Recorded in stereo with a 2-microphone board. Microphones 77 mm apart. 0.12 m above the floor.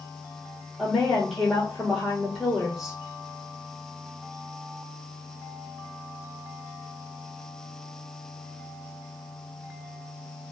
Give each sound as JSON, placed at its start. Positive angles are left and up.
{"t": 0.8, "sound": "a woman speaking", "side_deg": -5, "distance_m": 3.0}